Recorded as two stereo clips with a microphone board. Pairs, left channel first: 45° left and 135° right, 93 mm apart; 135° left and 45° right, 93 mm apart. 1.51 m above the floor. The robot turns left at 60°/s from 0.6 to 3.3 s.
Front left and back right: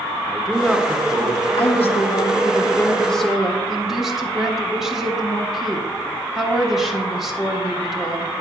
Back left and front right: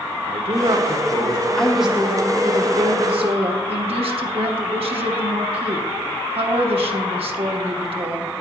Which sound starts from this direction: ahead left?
A woman speaking, at 1.6 s.